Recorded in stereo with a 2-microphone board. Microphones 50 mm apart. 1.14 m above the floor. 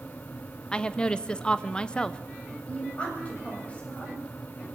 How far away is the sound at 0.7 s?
About 0.6 m.